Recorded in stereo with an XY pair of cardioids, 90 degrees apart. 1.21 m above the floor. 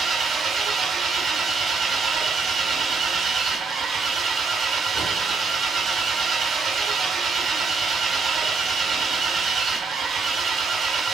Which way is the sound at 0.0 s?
65° right.